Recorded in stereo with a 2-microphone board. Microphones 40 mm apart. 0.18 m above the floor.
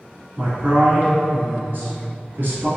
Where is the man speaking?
50° right (ahead or behind), 1.5 m.